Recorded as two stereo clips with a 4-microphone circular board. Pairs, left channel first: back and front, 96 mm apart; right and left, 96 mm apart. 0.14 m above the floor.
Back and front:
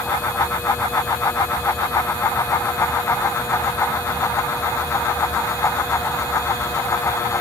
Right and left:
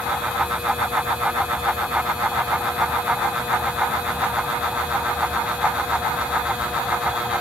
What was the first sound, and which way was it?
Only background noise.